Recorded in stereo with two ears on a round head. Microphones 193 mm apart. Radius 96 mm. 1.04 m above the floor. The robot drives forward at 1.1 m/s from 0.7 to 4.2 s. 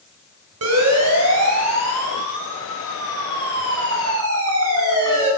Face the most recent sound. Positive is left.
turn(degrees=-75)  # may be behind; listen again after turning